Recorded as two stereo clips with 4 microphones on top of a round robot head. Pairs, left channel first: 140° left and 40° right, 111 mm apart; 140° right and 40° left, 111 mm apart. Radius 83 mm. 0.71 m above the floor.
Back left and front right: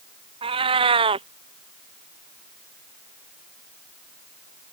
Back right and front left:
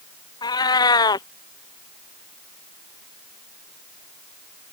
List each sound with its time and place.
0.4 s a cat meowing: 85° right